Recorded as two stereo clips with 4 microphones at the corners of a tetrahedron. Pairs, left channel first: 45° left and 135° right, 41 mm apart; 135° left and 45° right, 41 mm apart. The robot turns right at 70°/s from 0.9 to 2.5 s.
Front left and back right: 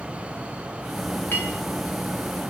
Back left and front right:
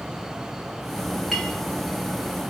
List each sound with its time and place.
1.3 s a clink: 50° left, 1.4 m; by 1.6 s 70° left, 1.4 m